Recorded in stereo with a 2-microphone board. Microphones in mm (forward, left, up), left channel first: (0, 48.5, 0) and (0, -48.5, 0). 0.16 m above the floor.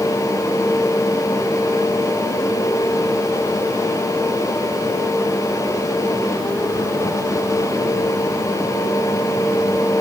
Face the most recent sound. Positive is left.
No sound to turn to.